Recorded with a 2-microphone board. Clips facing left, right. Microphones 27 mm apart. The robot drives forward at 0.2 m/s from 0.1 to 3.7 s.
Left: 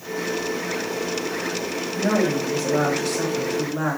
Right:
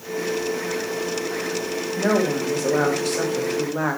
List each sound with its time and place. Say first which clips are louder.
2.0 s a woman speaking: even; 75° right (ahead or behind), 1.8 m; by 4.0 s 65° right (ahead or behind), 1.9 m